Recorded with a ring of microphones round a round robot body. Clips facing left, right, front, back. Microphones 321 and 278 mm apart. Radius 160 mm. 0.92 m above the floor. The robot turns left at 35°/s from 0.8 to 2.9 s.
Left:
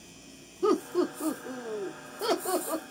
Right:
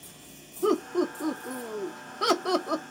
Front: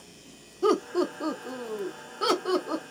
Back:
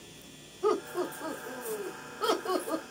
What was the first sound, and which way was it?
Laughter, 10° left.